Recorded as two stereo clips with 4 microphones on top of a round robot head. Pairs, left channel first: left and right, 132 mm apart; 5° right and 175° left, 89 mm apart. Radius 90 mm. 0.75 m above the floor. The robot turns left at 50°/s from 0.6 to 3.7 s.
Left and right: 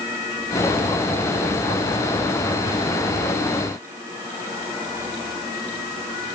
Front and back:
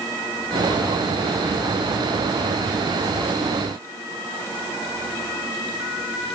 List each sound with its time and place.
Only background noise.